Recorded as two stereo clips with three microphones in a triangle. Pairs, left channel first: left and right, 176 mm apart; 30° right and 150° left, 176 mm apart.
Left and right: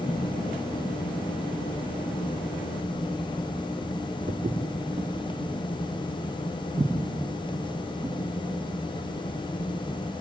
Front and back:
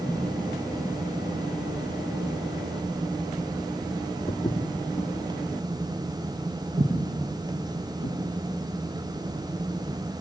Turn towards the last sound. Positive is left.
turn(degrees=-170)